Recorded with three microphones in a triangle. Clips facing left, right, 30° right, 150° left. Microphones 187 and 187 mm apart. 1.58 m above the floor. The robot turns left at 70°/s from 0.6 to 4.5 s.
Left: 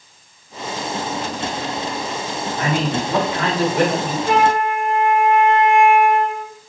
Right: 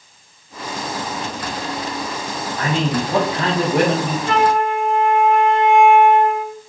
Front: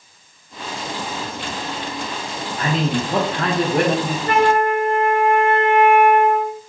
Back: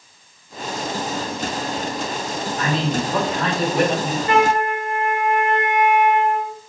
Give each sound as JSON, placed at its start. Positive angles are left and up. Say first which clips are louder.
{"t": 2.6, "sound": "a man speaking", "louder": "right 1 dB, front 2 dB", "azimuth_deg": 25, "distance_m": 1.3}
{"t": 4.3, "sound": "a flute", "louder": "even, front 2 dB", "azimuth_deg": 15, "distance_m": 0.9}